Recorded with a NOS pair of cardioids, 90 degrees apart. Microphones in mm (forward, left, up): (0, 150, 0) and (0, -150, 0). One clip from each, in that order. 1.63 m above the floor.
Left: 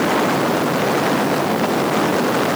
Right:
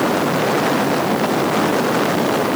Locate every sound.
Only background noise.